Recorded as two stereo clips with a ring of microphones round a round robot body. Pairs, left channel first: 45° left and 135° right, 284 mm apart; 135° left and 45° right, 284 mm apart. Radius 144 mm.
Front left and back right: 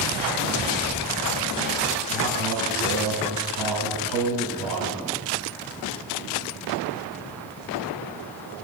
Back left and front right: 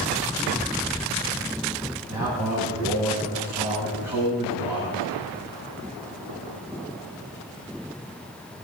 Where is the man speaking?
125° right, 7.5 m.